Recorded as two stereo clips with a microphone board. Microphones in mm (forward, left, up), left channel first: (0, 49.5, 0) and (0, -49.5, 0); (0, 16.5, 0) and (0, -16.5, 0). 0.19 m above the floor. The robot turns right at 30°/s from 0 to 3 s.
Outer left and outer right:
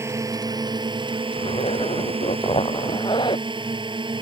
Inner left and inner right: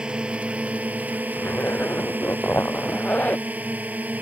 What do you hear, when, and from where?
0.0 s a drone: 150° right; by 4.2 s 60° right
1.4 s a zipper: 75° left; by 3.5 s 125° left